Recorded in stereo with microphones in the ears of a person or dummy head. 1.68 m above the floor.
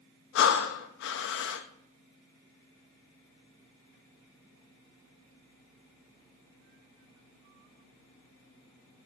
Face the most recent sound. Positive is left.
turn(degrees=60)  # may be behind; listen again after turning